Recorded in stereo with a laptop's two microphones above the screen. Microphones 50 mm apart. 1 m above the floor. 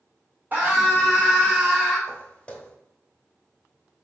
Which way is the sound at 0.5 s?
30° right (ahead or behind).